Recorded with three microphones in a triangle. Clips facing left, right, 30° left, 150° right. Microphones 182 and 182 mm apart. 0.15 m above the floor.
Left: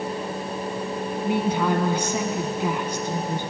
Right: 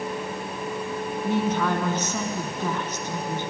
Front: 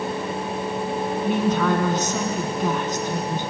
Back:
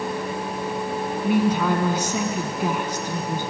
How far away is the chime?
No chime in this recording.